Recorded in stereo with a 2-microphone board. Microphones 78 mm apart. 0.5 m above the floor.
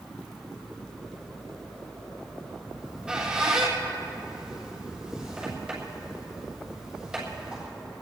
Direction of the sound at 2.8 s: 10° right (ahead or behind).